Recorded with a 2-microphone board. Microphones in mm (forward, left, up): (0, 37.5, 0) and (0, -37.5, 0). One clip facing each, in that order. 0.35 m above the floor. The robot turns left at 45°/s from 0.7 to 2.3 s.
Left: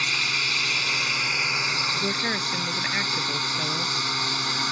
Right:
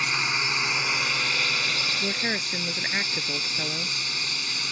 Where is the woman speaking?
5° left (ahead or behind); by 4.0 s 5° right (ahead or behind).